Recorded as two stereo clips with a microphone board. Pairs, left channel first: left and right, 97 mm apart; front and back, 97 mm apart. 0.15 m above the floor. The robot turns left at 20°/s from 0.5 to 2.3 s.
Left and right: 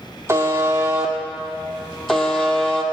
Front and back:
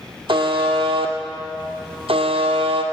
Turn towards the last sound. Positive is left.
turn(degrees=175)